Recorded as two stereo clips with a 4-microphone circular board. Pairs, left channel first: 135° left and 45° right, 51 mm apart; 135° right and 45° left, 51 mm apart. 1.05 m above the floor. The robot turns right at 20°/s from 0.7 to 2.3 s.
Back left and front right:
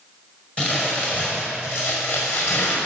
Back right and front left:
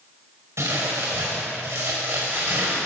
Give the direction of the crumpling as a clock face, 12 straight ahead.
10 o'clock.